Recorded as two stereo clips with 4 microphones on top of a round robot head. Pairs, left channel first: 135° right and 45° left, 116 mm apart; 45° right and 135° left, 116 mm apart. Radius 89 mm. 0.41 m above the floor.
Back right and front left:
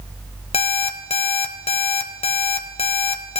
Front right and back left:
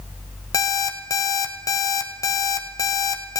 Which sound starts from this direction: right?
An alarm clock, at 0.5 s.